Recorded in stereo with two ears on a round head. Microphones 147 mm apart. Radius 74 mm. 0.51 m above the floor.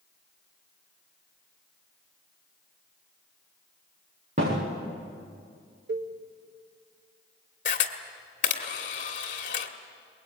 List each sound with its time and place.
4.4 s a thud: 40° right (ahead or behind), 8 m
5.9 s a cowbell: 80° right, 1.0 m
7.7 s a camera shutter: 50° left (ahead or behind), 1.7 m